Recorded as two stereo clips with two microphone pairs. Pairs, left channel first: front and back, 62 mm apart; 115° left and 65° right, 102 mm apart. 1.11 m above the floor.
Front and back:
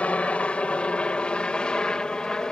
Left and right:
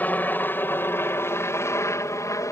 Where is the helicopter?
55° left; by 2.5 s 75° left.